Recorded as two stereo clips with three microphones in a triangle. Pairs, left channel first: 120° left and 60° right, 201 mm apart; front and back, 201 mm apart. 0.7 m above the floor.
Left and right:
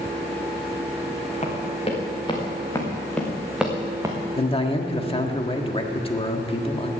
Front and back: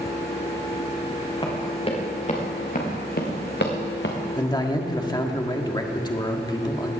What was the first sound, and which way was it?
Running footsteps, 65° left.